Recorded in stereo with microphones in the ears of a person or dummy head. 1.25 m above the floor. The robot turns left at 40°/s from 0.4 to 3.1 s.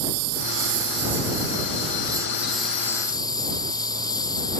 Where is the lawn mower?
95° right; by 4.6 s 160° left.